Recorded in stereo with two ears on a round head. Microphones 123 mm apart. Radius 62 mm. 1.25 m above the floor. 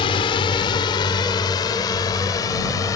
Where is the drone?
40° left (ahead or behind); by 3.0 s 25° left (ahead or behind).